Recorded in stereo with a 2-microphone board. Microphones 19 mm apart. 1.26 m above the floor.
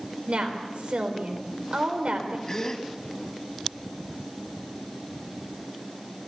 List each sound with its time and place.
0.3 s a woman speaking: 80° right, 4 m
2.5 s a gasp: 30° left (ahead or behind), 1.6 m